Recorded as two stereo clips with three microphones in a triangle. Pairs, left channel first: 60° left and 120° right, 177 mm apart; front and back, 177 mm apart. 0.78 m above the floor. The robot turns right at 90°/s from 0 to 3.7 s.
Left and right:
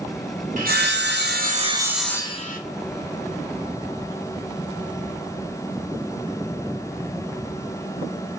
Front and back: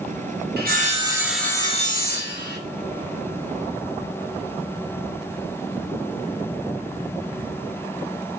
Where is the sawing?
160° right, 0.7 m; by 2.6 s 20° left, 0.7 m.